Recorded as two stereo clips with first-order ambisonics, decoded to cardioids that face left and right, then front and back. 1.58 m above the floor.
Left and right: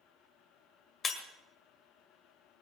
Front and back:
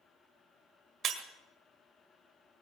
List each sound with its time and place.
1.0 s breaking glass: 145° left, 1.7 m